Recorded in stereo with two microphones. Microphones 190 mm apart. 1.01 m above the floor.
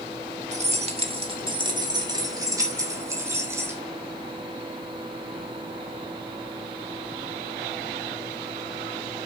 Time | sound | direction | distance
0.5 | keys jangling | 40° right (ahead or behind) | 1.5 m